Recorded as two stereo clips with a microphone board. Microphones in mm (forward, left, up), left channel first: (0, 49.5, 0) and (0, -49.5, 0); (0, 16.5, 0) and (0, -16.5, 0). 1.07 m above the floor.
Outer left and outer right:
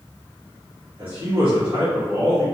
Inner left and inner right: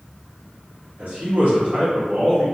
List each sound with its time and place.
1.0 s a man speaking: 55° right (ahead or behind), 1.2 m